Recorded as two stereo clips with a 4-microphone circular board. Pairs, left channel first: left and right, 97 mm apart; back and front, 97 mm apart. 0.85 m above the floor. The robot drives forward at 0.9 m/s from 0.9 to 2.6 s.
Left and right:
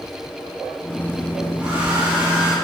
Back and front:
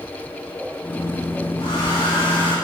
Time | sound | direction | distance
1.6 | a hair dryer | 165° right | 3 m